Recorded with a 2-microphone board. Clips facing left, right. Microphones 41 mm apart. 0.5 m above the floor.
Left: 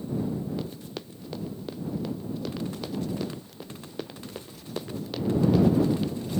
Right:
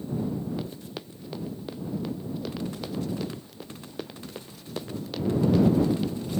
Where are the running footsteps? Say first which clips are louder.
Even; 5° right (ahead or behind); by 6.1 s 5° left (ahead or behind).